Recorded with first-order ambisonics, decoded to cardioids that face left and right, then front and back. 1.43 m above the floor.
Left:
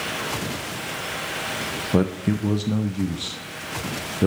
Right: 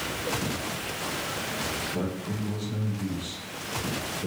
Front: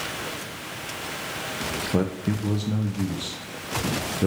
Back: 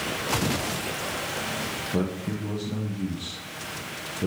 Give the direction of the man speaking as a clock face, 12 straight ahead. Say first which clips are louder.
Left 9 dB, front 3 dB; 10 o'clock.